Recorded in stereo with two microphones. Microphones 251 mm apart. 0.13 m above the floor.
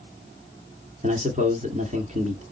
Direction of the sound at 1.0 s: 30° right (ahead or behind).